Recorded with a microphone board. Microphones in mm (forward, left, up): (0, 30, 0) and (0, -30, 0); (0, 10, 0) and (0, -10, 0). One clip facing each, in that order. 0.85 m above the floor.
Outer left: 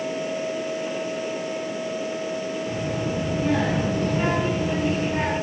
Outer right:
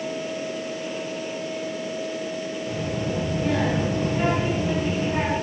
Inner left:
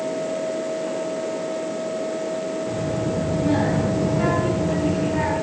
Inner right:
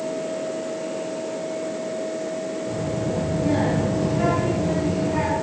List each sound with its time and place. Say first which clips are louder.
2.7 s a child speaking: outer left 1 dB, inner left 1 dB; 20° left (ahead or behind), 4.5 m; by 5.3 s 15° right (ahead or behind), 4.5 m